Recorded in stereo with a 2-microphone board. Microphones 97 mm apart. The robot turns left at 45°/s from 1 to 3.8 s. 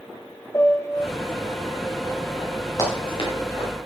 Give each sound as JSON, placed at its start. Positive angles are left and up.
{"t": 0.5, "sound": "a piano", "side_deg": 30, "distance_m": 0.9}
{"t": 2.8, "sound": "running footsteps", "side_deg": 40, "distance_m": 5.0}